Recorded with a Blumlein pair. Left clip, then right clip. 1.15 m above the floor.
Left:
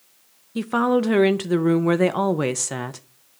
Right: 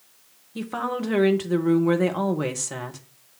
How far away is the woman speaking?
About 0.8 m.